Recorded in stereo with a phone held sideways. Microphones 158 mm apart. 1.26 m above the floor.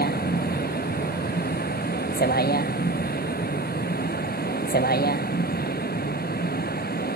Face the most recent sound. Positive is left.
turn(degrees=70)  # may be behind; listen again after turning